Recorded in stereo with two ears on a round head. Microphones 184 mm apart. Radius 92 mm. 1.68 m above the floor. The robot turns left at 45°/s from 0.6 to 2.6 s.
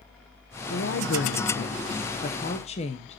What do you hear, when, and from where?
0.7 s a woman speaking: 120° left, 1.0 m; by 3.2 s 35° left, 1.0 m